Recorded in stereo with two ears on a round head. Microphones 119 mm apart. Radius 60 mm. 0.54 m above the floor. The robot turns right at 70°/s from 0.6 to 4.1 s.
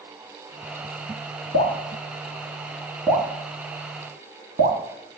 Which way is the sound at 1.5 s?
65° left (ahead or behind).